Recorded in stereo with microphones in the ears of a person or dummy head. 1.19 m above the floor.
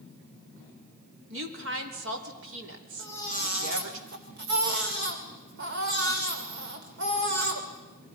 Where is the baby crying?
60° right (ahead or behind), 2.5 m.